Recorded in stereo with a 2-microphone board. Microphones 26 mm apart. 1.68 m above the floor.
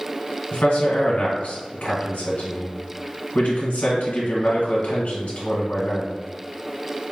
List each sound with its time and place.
0.5 s a man speaking: 65° left (ahead or behind), 1.3 m